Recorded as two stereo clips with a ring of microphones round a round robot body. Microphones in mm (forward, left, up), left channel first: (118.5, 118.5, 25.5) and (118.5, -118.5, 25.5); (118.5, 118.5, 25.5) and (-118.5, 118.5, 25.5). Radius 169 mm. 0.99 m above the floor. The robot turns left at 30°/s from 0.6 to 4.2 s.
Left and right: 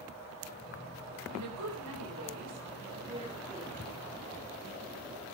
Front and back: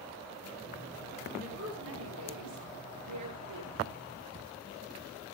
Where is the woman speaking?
110° right, 4 m; by 3.7 s 175° left, 4 m.